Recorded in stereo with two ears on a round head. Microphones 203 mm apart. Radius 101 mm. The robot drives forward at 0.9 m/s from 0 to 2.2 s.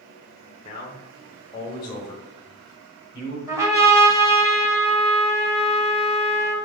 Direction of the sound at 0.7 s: 30° left (ahead or behind).